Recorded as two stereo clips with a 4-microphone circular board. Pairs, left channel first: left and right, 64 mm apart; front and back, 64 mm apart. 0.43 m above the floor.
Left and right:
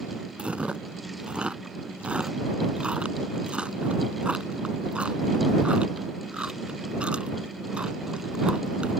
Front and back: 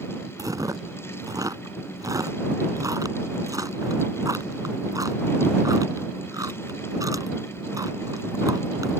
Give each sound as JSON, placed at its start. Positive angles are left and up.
{"t": 0.4, "sound": "chewing", "azimuth_deg": -160}